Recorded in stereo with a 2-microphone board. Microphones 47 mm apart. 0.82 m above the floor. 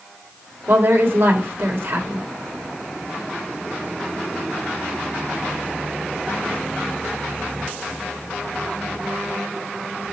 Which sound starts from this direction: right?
A woman speaking, at 0.7 s.